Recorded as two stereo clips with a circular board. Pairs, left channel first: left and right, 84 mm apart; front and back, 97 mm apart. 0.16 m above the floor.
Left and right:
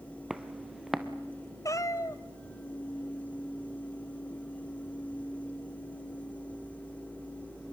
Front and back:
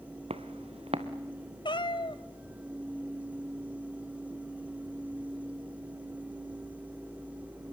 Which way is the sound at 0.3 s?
175° right.